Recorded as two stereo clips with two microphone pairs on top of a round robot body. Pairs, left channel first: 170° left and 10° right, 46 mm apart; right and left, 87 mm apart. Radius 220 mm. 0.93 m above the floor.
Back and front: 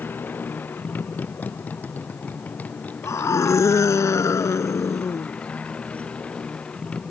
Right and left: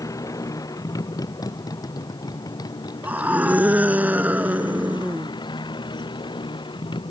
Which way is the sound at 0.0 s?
140° right.